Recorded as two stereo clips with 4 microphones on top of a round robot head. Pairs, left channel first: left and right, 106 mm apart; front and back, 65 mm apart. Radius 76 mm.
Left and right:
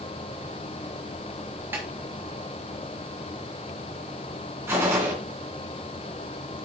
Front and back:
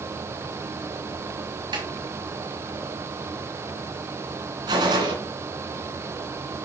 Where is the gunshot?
160° right, 2.5 m.